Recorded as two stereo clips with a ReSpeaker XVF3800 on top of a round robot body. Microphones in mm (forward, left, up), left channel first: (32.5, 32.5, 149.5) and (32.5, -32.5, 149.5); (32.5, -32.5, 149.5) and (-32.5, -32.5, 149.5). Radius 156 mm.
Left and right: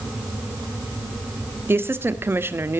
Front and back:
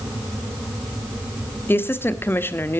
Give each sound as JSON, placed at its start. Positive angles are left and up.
{"t": 1.7, "sound": "a woman speaking", "azimuth_deg": -45, "distance_m": 1.7}